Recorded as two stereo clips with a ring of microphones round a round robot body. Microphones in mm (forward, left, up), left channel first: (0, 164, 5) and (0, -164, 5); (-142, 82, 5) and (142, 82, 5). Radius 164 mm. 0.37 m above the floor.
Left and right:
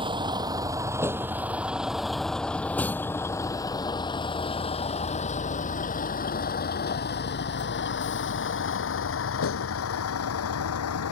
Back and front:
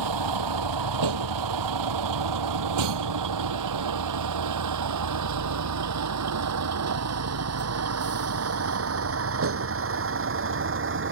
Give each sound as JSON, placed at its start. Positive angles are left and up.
{"t": 0.0, "sound": "a vehicle", "azimuth_deg": -15}